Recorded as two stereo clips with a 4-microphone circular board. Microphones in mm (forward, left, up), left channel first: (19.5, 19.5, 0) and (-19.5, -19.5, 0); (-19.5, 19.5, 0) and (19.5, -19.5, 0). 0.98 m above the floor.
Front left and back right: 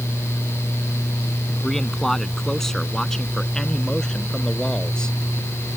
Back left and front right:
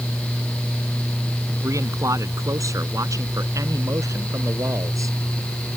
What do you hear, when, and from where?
1.6 s a man speaking: 40° right; by 5.2 s 30° right